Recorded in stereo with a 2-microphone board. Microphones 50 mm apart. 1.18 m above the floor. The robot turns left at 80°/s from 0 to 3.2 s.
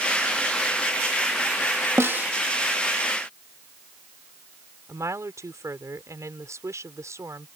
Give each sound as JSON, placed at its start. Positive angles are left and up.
{"t": 2.0, "sound": "a snare drum", "side_deg": -55}
{"t": 4.9, "sound": "a woman speaking", "side_deg": -80}